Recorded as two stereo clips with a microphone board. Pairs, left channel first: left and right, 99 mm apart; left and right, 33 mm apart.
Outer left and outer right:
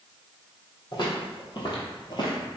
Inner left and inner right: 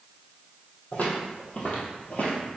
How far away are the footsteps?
About 1.5 m.